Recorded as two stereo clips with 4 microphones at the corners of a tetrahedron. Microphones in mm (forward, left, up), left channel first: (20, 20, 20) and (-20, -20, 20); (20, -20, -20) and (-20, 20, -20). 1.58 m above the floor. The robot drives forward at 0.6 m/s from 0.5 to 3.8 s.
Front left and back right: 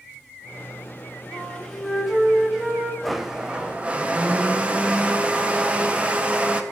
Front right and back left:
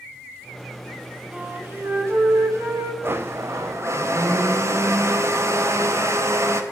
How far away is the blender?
About 0.5 m.